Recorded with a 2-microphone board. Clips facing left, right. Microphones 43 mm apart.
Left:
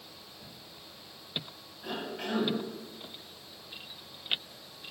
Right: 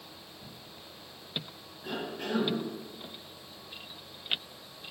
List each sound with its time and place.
1.8 s a cough: 80° left, 2.5 m